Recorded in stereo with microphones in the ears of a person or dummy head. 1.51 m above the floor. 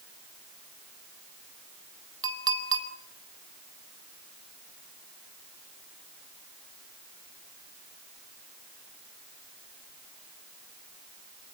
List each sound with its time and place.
2.2 s a clink: 20° right (ahead or behind), 4 m